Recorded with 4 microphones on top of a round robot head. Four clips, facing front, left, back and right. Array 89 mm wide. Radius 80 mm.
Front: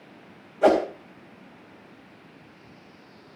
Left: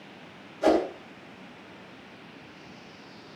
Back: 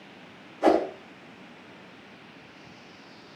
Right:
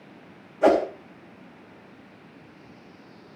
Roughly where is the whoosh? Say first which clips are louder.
Right 3 dB, front 2 dB; ahead right.